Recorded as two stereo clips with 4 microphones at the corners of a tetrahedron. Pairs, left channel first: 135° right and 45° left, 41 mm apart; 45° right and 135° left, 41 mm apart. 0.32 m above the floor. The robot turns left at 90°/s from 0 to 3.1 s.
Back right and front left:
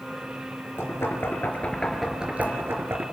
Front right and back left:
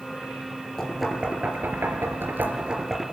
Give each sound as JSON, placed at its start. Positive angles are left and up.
{"t": 0.8, "sound": "knocking", "azimuth_deg": -115, "distance_m": 3.5}